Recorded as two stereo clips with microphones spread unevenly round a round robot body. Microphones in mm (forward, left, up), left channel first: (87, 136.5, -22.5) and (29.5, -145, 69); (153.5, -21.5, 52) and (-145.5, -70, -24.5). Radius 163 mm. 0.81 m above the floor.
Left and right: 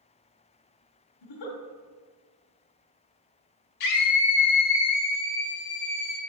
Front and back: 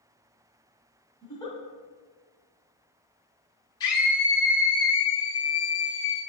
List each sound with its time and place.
1.2 s a giggle: 85° left, 1.5 m
3.8 s a scream: 90° left, 1.7 m